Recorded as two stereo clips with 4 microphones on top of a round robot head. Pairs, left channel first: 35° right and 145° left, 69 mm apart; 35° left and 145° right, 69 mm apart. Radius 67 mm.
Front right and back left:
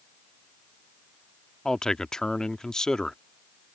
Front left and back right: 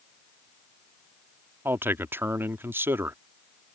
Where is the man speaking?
110° right.